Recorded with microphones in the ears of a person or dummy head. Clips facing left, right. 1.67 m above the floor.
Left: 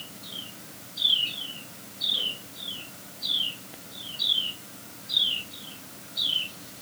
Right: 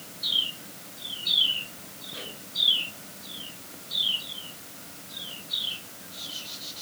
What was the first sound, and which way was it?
Only background noise.